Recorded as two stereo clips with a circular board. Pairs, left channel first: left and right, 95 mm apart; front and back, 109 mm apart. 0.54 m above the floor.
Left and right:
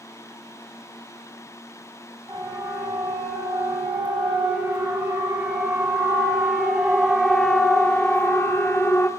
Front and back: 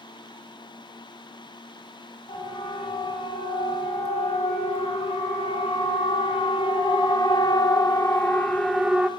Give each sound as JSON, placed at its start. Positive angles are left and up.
{"t": 2.3, "sound": "a siren", "azimuth_deg": -20, "distance_m": 5.5}